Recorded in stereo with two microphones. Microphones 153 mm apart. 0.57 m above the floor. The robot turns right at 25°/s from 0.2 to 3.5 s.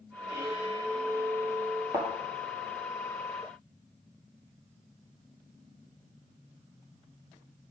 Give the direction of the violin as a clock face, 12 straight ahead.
2 o'clock.